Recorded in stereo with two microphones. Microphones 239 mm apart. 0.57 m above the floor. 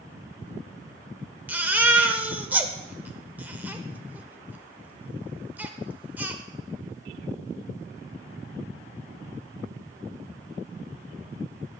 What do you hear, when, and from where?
1.5 s a baby crying: 5° right (ahead or behind), 0.9 m